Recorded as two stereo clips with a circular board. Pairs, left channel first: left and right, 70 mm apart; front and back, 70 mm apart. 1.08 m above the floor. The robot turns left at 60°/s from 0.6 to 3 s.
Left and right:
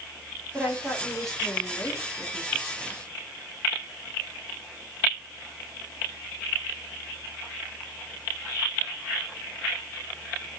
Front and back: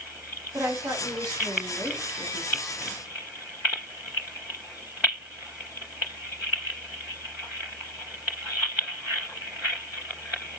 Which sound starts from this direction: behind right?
A woman speaking, at 0.5 s.